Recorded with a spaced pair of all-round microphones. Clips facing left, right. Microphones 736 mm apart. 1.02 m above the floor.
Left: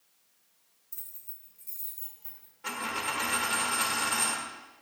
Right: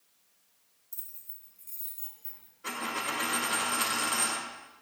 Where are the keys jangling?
35° left (ahead or behind), 2 m; by 2.5 s 70° left (ahead or behind), 4 m.